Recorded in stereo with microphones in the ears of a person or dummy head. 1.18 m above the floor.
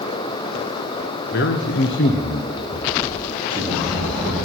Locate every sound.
1.3 s a man speaking: 50° left (ahead or behind), 0.8 m; by 4.4 s centre (ahead or behind), 1.8 m